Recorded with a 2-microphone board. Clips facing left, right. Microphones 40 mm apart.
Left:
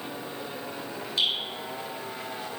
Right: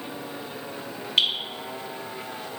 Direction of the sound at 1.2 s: 45° right (ahead or behind).